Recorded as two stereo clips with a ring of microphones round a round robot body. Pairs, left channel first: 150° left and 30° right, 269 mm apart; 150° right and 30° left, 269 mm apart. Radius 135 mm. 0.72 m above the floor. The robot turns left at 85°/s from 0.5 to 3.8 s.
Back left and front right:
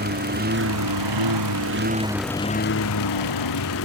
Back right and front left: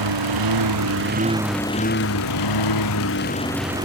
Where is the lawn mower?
25° left; by 3.9 s 105° left.